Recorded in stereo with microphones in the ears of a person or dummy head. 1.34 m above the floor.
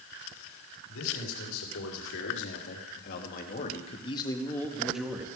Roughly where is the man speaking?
Left.